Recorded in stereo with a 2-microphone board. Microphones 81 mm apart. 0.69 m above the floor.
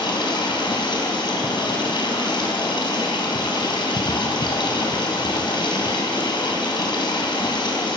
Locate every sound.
0.0 s running water: 85° left, 4 m